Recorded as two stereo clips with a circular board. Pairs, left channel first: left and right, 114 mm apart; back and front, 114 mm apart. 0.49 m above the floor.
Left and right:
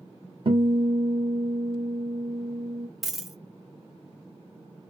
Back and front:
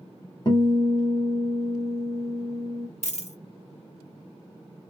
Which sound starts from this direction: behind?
A dropped coin, at 3.0 s.